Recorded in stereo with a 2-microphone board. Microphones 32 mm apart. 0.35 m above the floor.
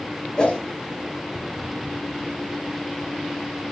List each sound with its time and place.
0.4 s a whoosh: 30° left (ahead or behind), 1.6 m